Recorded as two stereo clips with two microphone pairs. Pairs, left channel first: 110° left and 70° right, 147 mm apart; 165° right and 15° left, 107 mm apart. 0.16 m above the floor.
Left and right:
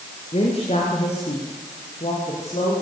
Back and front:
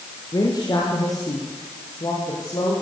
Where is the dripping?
No dripping in this recording.